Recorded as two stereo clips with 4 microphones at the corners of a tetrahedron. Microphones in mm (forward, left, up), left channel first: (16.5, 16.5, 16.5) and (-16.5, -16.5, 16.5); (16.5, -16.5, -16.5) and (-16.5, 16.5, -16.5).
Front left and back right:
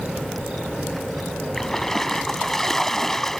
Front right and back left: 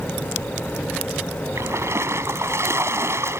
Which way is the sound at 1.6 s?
125° left.